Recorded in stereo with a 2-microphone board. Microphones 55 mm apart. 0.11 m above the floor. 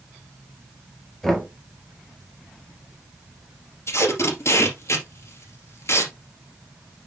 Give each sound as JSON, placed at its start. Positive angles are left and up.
{"t": 1.2, "sound": "knocking", "side_deg": 5, "distance_m": 2.0}
{"t": 3.9, "sound": "tape being pulled", "side_deg": 55, "distance_m": 2.5}